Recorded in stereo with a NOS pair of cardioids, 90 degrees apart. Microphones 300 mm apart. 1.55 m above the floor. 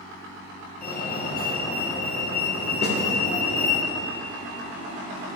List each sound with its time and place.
0.8 s a fire alarm: 30° left, 2.5 m
2.8 s a snare drum: 35° left, 2.5 m